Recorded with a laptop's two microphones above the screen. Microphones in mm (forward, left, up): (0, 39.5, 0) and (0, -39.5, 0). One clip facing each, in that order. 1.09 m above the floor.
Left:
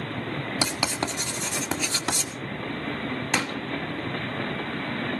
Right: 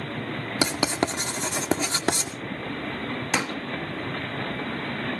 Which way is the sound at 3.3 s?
10° right (ahead or behind).